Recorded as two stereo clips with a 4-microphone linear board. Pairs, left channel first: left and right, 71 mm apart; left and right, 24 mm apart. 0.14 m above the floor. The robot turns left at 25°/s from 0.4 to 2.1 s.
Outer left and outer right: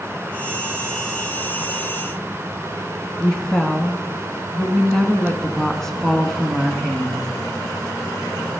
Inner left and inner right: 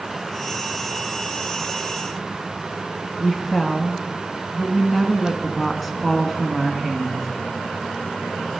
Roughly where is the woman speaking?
Centre.